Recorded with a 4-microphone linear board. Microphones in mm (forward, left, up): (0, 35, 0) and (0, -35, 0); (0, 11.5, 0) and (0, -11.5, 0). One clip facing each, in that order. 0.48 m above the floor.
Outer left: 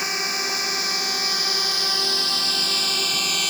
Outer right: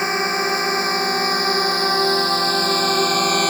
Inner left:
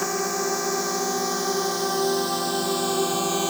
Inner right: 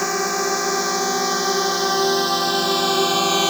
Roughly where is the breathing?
No breathing in this recording.